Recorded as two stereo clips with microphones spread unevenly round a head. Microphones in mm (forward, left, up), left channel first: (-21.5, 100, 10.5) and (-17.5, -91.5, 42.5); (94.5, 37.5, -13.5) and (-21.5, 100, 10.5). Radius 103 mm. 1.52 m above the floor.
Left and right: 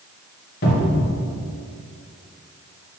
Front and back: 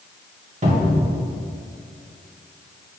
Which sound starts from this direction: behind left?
A cupboard door, at 0.6 s.